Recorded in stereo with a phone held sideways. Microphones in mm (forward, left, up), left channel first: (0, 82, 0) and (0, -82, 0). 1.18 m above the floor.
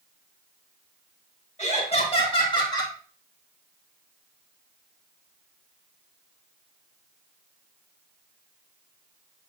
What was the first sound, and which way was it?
Laughter, 45° left (ahead or behind).